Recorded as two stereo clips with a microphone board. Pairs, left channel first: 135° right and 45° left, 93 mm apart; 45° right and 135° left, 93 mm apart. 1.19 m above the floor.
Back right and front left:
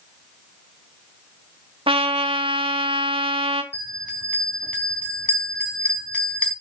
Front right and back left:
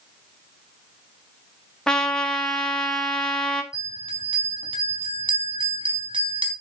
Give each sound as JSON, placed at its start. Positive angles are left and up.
{"t": 1.9, "sound": "a trumpet", "azimuth_deg": 35, "distance_m": 1.4}
{"t": 3.7, "sound": "a bell", "azimuth_deg": 150, "distance_m": 3.5}